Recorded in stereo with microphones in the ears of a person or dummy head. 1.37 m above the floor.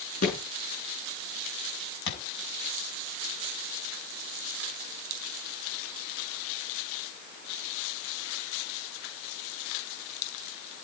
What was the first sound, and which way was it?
A thud, 45° left (ahead or behind).